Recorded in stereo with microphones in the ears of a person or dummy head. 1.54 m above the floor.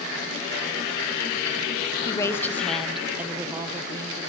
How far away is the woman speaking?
About 0.8 m.